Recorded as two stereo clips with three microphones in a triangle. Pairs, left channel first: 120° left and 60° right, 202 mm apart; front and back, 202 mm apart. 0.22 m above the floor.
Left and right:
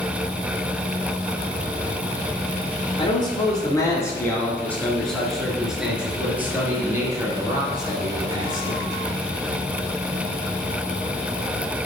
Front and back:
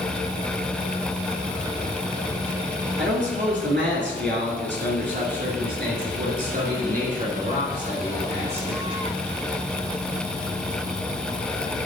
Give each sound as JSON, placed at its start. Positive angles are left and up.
{"t": 3.0, "sound": "a man speaking", "azimuth_deg": 180, "distance_m": 3.0}